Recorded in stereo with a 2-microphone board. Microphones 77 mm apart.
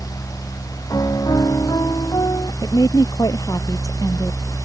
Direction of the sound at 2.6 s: 50° left (ahead or behind).